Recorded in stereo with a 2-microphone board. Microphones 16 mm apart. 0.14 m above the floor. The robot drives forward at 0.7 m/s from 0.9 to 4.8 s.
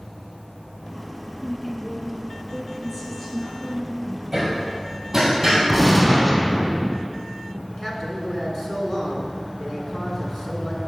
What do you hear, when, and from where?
1.4 s a woman speaking: 10° left (ahead or behind), 1.2 m; by 4.2 s 5° left (ahead or behind), 3 m
4.3 s hammering: 25° right (ahead or behind), 2 m; by 5.6 s 20° right (ahead or behind), 2.5 m
5.7 s a gunshot: 10° left (ahead or behind), 1.0 m
7.7 s a man speaking: 35° left (ahead or behind), 1.4 m